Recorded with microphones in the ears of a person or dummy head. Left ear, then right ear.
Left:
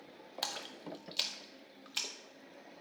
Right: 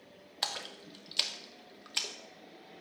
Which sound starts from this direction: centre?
A splash, at 0.4 s.